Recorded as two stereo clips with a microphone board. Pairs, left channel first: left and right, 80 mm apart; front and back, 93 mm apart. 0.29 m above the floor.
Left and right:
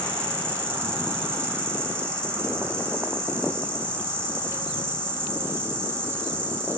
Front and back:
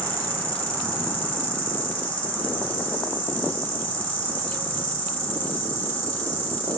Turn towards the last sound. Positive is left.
turn(degrees=-60)